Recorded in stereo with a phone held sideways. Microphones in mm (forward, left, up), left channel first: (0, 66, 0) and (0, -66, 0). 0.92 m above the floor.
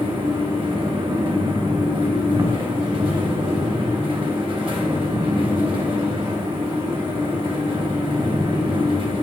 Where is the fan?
40° right (ahead or behind), 0.7 m.